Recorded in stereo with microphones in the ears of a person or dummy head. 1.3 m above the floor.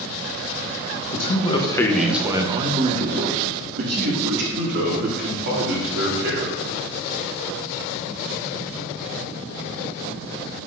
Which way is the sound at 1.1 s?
45° left (ahead or behind).